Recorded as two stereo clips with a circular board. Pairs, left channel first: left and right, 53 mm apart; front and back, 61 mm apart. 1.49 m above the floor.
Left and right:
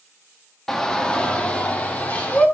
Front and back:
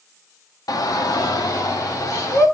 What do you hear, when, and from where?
0.7 s a shout: 10° left, 0.8 m; by 2.5 s 30° left, 1.8 m